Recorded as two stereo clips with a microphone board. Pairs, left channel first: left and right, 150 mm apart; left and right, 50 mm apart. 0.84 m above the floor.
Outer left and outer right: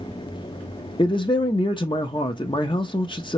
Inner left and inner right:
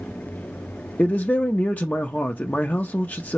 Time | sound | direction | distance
1.0 | a man speaking | 35° left (ahead or behind) | 0.6 m